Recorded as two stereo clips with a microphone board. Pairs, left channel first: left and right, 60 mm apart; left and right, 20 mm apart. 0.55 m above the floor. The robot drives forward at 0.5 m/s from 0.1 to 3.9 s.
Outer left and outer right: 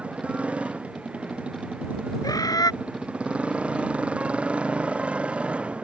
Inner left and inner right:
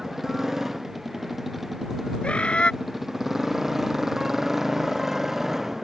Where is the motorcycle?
20° right (ahead or behind).